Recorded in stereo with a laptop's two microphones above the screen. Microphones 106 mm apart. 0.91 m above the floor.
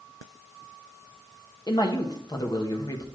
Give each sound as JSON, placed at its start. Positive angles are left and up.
{"t": 1.7, "sound": "a man speaking", "side_deg": 45, "distance_m": 1.0}